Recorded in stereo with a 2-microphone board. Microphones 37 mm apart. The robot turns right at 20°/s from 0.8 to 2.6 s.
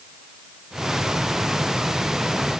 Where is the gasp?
No gasp in this recording.